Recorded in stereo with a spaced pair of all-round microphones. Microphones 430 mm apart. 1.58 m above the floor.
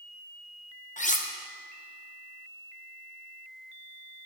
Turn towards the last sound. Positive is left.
turn(degrees=20)  # may be behind; listen again after turning